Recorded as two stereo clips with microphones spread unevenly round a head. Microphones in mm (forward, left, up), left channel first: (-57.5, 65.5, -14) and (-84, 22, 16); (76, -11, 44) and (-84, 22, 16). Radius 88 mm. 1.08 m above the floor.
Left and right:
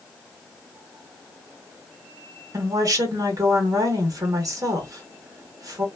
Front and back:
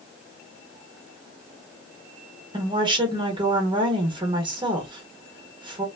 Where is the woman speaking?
135° right, 1.5 m.